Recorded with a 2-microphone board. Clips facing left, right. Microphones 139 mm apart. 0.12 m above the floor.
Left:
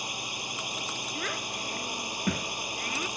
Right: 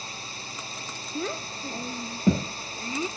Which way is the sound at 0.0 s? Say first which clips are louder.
Left 2 dB; 15° left (ahead or behind).